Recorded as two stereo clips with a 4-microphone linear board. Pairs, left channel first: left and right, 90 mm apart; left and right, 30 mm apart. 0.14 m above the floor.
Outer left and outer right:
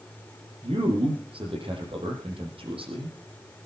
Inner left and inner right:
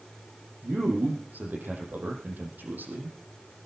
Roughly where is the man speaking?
Right.